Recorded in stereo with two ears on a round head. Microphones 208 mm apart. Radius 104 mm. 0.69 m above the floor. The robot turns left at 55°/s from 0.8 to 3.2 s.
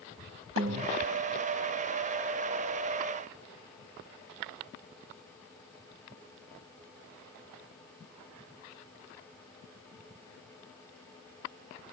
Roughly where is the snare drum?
Right.